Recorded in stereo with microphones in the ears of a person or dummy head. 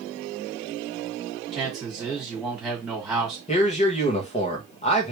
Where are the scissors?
No scissors in this recording.